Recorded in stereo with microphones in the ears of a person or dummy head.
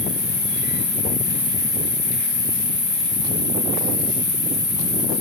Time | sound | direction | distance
0.0 | an insect | 25° left (ahead or behind) | 1.2 m